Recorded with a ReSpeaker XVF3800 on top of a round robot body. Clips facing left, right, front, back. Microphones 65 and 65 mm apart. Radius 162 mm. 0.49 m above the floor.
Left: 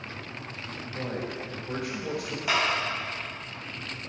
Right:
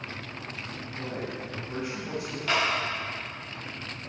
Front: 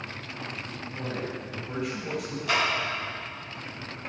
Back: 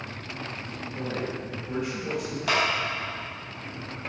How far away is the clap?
About 3.5 m.